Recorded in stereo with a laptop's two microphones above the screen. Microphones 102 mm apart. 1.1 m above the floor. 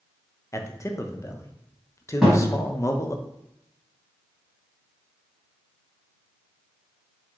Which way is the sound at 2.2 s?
5° right (ahead or behind).